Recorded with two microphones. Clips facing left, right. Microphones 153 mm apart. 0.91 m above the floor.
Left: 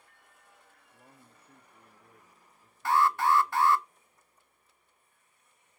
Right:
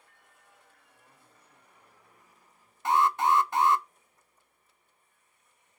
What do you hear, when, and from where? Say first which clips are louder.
0.9 s a man speaking: left 7 dB; 70° left (ahead or behind), 2.0 m
2.9 s an alarm: right 1 dB; 20° right (ahead or behind), 0.7 m